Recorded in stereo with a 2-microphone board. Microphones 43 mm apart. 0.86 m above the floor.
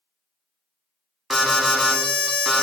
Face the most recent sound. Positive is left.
turn(degrees=-5)  # may be behind; listen again after turning